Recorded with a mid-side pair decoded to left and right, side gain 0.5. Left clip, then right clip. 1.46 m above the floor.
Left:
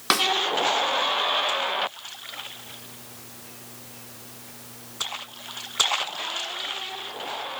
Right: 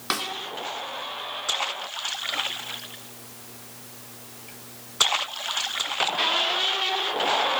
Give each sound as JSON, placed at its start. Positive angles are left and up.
{"t": 0.1, "sound": "a snare drum", "azimuth_deg": 35, "distance_m": 2.5}